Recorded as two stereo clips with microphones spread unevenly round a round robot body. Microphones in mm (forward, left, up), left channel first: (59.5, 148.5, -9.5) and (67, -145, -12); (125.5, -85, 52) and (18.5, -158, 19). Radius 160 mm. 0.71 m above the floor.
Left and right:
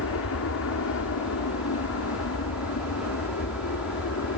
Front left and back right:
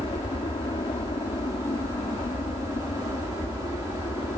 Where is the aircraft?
90° left.